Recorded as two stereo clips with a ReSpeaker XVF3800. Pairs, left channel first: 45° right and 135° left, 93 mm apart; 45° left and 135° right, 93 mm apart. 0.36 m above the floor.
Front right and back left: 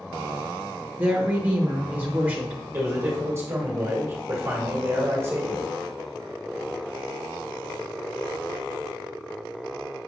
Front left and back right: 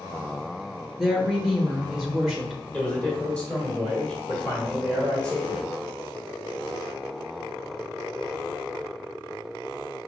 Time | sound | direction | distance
1.0 | a woman speaking | 150° left | 0.8 m
2.7 | a man speaking | 110° left | 1.6 m